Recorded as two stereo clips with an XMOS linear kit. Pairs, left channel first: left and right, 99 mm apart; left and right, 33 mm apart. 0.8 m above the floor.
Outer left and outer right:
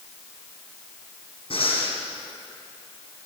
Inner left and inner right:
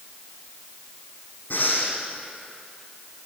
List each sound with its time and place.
1.5 s breathing: 60° left (ahead or behind), 6.5 m